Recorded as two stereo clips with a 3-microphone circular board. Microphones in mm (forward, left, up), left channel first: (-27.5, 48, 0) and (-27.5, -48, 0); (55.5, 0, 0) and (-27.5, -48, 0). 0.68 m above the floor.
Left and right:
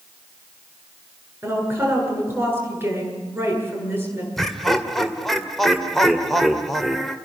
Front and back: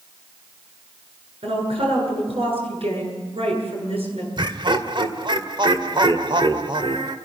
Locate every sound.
1.4 s a woman speaking: 155° right, 9.5 m
4.4 s laughter: straight behind, 2 m